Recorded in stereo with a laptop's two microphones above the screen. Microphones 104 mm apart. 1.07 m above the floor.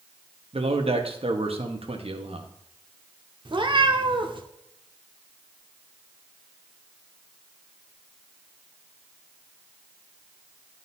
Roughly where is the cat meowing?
Right.